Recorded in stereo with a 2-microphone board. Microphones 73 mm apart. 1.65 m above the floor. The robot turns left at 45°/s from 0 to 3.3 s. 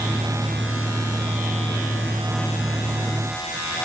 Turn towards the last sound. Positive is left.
No sound to turn to.